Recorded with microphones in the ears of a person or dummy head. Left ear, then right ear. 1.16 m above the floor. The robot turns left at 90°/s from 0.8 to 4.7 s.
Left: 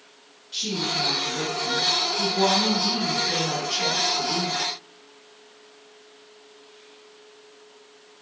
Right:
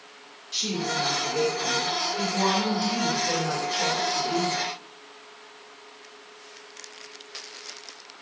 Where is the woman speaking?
25° right, 1.4 m; by 4.6 s 5° right, 1.4 m.